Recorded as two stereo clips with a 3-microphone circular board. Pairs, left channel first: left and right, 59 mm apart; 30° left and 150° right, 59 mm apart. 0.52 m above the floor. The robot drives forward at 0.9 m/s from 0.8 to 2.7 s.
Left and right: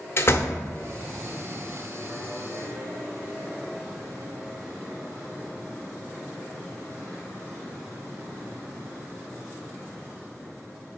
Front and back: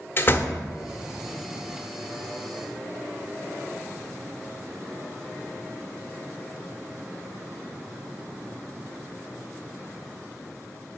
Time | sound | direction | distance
0.2 | a door slam | 65° left | 0.8 m